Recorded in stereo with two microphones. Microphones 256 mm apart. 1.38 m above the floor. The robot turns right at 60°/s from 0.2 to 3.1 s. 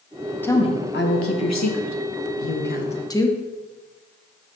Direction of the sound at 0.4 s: 5° left (ahead or behind).